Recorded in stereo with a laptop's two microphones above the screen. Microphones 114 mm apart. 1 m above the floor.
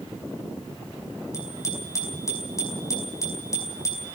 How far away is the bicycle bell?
About 5 m.